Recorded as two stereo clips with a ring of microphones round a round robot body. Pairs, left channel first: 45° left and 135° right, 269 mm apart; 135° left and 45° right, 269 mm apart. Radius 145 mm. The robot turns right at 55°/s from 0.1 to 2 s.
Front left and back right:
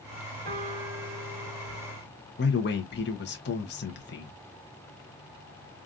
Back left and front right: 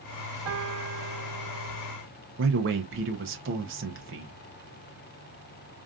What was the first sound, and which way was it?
A piano, 85° right.